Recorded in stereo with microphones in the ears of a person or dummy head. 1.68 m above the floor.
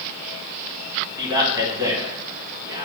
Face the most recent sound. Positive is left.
turn(degrees=-20)  # may be behind; listen again after turning